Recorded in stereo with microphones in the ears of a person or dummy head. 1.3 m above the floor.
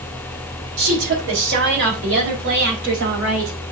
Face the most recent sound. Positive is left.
turn(degrees=-75)  # may be behind; listen again after turning